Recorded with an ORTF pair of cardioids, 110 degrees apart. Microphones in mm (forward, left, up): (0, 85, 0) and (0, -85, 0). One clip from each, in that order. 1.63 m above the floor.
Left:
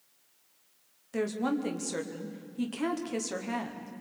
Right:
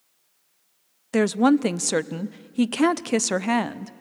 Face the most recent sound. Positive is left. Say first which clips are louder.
# right 11 dB
turn(degrees=-65)